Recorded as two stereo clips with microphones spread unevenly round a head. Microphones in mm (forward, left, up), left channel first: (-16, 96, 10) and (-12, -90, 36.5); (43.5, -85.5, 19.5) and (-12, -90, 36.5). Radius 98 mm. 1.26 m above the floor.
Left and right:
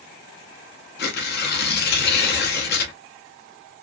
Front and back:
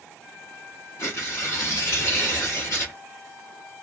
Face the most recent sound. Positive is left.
turn(degrees=55)